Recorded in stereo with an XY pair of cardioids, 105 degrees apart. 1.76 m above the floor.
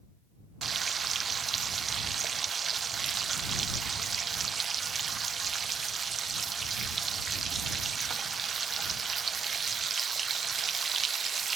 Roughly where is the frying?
Ahead right.